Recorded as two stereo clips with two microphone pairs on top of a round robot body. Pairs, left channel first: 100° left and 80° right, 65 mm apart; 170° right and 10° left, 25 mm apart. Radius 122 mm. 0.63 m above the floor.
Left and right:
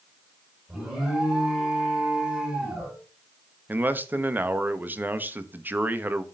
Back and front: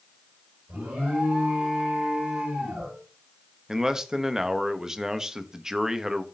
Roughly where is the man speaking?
Ahead right.